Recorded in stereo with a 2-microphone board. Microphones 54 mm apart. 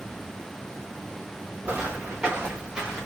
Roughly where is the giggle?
I don't hear a giggle.